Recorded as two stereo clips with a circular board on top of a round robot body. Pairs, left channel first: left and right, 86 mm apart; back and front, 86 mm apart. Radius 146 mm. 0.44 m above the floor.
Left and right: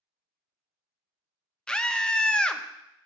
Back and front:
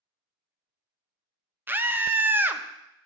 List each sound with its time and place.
1.7 s a scream: 20° left, 0.8 m